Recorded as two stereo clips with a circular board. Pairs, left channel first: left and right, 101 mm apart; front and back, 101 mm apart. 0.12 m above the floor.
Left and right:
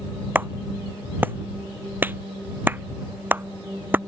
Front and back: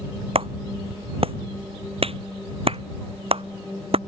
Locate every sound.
0.3 s a clap: 160° right